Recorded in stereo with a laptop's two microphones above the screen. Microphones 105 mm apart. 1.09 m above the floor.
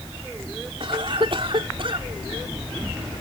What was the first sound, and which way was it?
A cough, 55° right (ahead or behind).